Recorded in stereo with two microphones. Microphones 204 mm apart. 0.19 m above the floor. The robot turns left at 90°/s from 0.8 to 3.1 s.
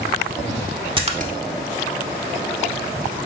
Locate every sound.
1.0 s a splash: 25° right (ahead or behind), 0.6 m; by 1.3 s 45° right (ahead or behind), 0.6 m